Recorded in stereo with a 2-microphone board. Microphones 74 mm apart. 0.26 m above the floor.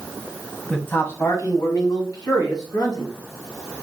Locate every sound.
0.7 s a man speaking: 10° left (ahead or behind), 1.6 m; by 3.1 s 70° left (ahead or behind), 3.5 m